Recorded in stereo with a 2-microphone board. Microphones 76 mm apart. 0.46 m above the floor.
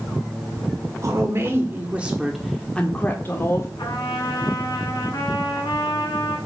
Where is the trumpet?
60° left (ahead or behind), 2.5 m.